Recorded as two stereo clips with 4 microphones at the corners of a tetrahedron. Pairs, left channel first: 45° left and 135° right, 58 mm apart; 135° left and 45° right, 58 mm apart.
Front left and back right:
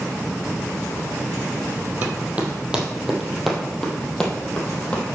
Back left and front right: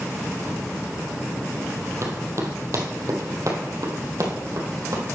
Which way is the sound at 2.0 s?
75° right.